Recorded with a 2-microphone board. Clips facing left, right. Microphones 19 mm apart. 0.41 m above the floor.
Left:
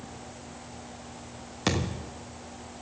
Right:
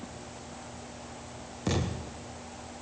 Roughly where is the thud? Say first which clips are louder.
Left 3 dB; left.